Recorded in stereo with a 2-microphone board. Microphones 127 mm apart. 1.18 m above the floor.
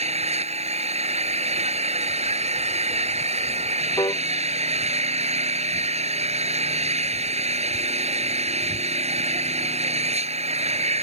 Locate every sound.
0.0 s an engine running: 55° right (ahead or behind)
4.0 s a piano: 30° left (ahead or behind)